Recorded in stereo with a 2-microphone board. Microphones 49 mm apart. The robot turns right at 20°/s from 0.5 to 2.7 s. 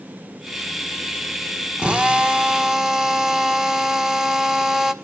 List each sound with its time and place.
1.8 s a drill: 25° right (ahead or behind), 1.4 m; by 4.9 s 10° right (ahead or behind), 1.4 m